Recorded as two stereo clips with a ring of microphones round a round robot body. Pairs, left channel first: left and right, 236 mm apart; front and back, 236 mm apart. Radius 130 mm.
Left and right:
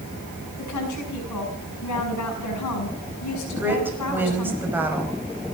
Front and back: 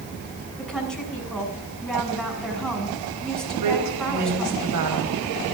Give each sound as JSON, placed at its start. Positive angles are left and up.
{"t": 0.6, "sound": "a woman speaking", "azimuth_deg": 85, "distance_m": 6.5}
{"t": 3.6, "sound": "a woman speaking", "azimuth_deg": -170, "distance_m": 5.0}